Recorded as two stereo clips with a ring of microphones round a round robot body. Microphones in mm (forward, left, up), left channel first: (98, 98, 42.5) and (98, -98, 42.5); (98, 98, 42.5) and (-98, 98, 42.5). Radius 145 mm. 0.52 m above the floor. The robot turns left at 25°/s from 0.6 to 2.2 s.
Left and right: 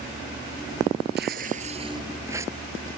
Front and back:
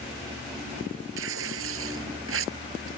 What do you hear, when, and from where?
1.2 s tearing paper: 145° right; by 2.9 s 170° right